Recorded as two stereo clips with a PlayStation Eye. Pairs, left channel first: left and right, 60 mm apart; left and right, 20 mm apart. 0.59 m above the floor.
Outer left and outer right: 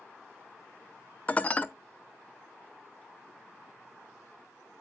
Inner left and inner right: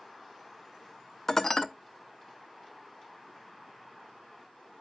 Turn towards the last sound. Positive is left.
turn(degrees=25)  # may be behind; listen again after turning